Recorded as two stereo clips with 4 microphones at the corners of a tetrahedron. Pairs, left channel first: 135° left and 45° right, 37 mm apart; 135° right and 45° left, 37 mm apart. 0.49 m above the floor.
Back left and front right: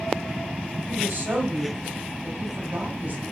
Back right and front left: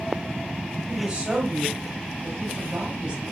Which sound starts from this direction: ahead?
A woman speaking, at 0.9 s.